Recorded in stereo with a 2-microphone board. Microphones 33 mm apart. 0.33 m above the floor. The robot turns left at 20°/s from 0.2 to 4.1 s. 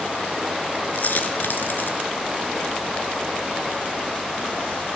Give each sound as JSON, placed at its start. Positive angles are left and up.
{"t": 0.9, "sound": "a dropped coin", "side_deg": 60, "distance_m": 1.2}